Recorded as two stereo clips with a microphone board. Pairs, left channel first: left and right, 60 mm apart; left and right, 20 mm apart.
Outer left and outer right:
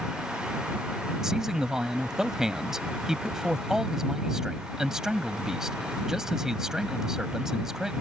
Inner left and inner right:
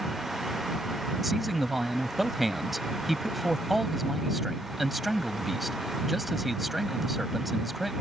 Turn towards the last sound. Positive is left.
turn(degrees=-10)  # may be behind; listen again after turning